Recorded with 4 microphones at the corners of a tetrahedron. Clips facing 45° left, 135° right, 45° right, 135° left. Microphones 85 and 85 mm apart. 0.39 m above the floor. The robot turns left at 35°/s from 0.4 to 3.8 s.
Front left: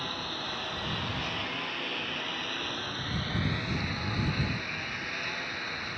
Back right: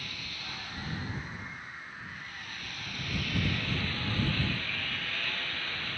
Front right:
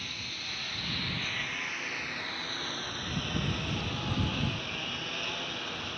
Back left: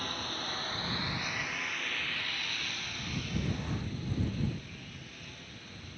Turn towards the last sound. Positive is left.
turn(degrees=-30)